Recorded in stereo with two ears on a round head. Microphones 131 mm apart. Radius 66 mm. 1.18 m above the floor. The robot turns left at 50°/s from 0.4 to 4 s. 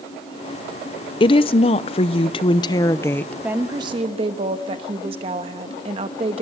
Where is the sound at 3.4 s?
10° right (ahead or behind), 1.1 m; by 6.4 s 40° right (ahead or behind), 1.1 m.